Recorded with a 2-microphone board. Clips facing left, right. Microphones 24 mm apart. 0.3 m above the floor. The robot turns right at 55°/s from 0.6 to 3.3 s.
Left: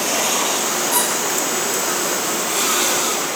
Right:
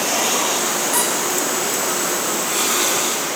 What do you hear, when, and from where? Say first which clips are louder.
0.9 s a squeak: left 1 dB; 65° left (ahead or behind), 6 m; by 1.1 s 55° left (ahead or behind), 6 m